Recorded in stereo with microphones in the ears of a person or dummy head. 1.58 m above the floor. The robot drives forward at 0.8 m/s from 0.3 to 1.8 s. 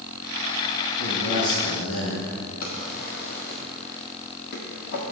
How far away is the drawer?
About 1.6 m.